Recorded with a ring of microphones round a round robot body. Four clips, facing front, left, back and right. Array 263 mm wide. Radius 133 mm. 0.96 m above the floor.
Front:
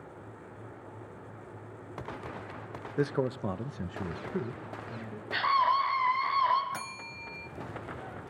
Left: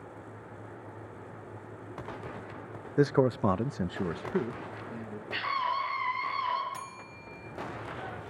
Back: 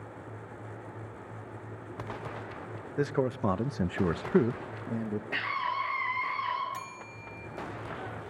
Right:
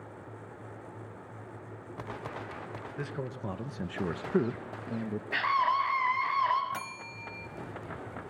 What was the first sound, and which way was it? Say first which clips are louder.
A man speaking: left 15 dB, back 1 dB; 90° left.